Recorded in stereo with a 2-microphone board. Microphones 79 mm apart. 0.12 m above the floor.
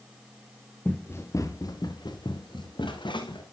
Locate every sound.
0.8 s running footsteps: 20° left (ahead or behind), 1.4 m; by 3.4 s 90° left, 2.5 m